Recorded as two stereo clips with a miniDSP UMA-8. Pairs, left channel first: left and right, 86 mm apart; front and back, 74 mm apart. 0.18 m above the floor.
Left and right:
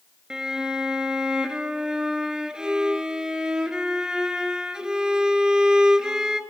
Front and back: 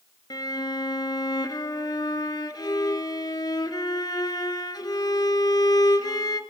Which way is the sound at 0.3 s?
10° right.